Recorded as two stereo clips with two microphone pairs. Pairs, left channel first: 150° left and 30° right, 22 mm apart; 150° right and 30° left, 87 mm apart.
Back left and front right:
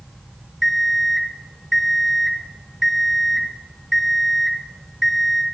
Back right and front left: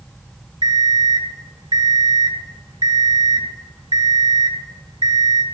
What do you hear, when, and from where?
0.6 s an alarm clock: 60° left, 1.8 m